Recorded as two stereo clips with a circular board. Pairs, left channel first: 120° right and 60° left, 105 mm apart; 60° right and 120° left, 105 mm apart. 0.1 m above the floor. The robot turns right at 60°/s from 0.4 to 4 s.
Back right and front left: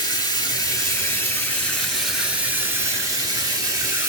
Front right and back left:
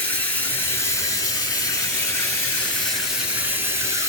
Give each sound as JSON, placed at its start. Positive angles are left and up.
{"t": 0.0, "sound": "running water", "azimuth_deg": -115, "distance_m": 1.5}